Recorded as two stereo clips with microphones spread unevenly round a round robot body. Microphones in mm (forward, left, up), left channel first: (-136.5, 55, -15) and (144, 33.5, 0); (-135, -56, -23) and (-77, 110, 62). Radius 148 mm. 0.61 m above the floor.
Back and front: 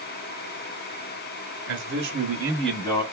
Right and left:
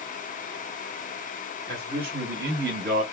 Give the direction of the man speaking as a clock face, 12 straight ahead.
12 o'clock.